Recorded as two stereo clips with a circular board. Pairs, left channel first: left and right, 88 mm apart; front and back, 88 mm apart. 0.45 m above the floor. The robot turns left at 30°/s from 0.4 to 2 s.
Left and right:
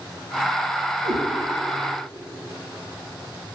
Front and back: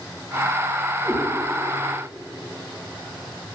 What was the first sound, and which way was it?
A cat meowing, 85° right.